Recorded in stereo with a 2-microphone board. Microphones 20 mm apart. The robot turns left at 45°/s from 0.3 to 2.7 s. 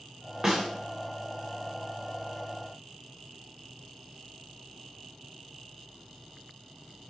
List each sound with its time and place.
0.4 s a snare drum: 20° right (ahead or behind), 6.5 m; by 0.7 s 10° right (ahead or behind), 6.5 m